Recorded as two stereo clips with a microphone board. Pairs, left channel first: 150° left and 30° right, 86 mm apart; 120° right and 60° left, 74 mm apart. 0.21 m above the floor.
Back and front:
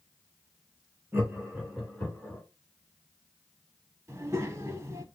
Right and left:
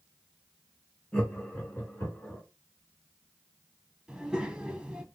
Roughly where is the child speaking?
Ahead.